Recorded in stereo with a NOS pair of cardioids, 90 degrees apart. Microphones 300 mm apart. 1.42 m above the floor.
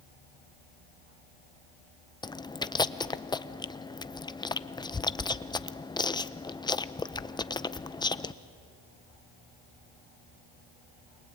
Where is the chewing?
15° left, 0.7 m.